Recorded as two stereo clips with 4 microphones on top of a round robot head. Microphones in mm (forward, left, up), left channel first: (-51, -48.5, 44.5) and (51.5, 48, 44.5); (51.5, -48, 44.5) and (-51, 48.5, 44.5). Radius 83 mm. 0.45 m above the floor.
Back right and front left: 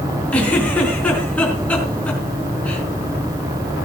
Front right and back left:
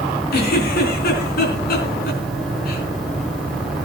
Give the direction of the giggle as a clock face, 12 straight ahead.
2 o'clock.